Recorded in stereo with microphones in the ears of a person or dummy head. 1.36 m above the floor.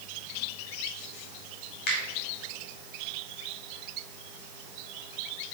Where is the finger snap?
45° left (ahead or behind), 2 m.